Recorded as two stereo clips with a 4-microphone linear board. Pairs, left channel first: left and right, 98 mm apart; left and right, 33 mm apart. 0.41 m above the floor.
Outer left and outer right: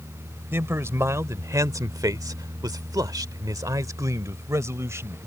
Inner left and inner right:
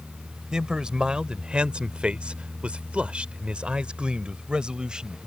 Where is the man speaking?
25° right (ahead or behind); by 5.2 s 30° right (ahead or behind).